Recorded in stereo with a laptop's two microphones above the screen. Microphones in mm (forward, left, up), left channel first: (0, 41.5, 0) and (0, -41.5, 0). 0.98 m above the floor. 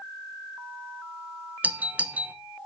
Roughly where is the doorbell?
Centre.